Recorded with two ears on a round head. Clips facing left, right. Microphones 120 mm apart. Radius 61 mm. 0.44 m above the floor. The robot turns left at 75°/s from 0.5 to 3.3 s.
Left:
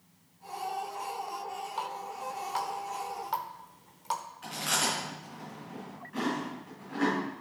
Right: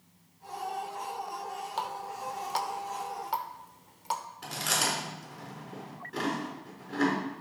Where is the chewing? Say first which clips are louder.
Even; 40° right (ahead or behind), 4.5 m.